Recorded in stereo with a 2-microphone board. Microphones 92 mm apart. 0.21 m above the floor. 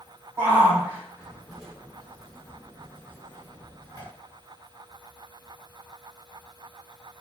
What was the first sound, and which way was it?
A shout, 25° right (ahead or behind).